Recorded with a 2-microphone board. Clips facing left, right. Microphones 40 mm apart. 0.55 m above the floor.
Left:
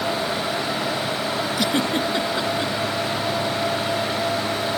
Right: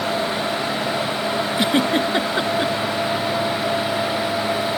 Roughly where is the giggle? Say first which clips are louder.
Right 4 dB; right.